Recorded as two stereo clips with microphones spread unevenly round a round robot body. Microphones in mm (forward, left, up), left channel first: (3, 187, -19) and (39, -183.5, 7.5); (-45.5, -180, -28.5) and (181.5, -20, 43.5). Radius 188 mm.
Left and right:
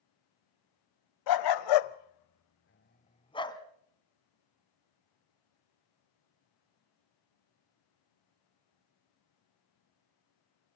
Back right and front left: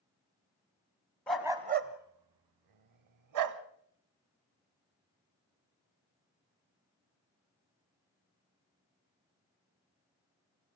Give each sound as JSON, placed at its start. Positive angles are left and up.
{"t": 1.3, "sound": "a dog barking", "azimuth_deg": 130, "distance_m": 1.0}